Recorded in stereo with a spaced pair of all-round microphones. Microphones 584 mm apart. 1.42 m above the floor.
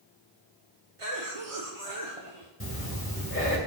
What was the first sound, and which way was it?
A cough, 60° right (ahead or behind).